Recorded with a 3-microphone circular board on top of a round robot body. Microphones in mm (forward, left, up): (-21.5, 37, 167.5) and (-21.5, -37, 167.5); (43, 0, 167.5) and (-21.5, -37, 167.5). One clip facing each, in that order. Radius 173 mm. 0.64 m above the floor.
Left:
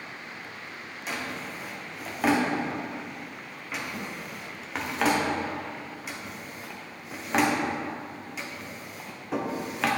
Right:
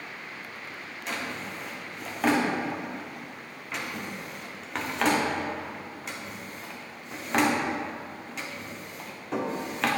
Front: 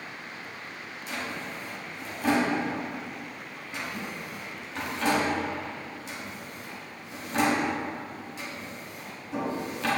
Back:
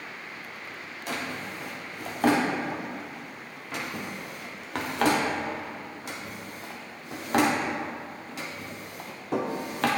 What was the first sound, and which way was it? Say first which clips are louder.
A drawer: even, back 2 dB; 175° left.